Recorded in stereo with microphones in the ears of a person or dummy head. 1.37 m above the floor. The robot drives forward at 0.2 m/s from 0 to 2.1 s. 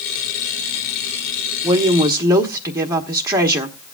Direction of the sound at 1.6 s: 20° right (ahead or behind).